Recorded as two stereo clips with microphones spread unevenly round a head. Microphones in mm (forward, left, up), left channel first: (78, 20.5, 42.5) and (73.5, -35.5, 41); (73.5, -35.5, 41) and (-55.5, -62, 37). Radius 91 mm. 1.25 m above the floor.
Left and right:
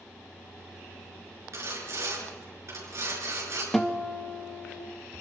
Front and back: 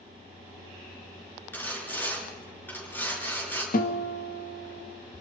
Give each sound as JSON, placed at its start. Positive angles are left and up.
{"t": 1.5, "sound": "sawing", "azimuth_deg": -65, "distance_m": 7.5}
{"t": 3.7, "sound": "a guitar", "azimuth_deg": 0, "distance_m": 1.9}